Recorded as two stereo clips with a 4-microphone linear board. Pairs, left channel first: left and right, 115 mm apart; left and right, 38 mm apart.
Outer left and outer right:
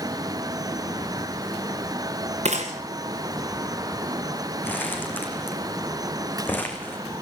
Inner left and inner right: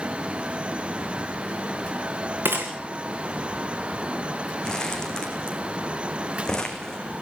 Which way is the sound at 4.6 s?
15° left (ahead or behind).